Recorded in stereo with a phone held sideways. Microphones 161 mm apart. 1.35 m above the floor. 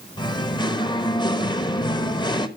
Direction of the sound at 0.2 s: 25° left (ahead or behind).